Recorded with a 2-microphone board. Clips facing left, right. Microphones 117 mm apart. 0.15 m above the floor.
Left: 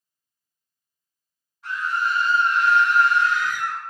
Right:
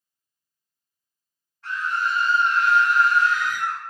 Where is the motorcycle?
I don't hear a motorcycle.